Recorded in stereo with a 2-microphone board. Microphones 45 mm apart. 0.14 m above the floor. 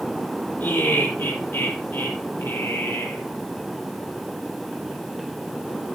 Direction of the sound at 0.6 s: 55° left (ahead or behind).